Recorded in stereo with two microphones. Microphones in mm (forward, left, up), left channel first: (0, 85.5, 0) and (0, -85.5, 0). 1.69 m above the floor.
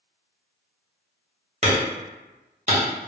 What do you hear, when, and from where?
1.6 s hammering: 40° right (ahead or behind), 1.1 m